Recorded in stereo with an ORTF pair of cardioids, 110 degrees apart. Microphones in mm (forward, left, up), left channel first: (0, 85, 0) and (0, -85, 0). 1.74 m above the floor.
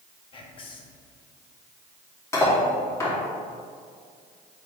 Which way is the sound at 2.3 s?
15° left.